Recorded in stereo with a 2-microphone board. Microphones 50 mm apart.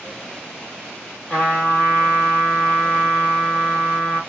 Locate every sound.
1.3 s a trumpet: 20° left (ahead or behind), 1.9 m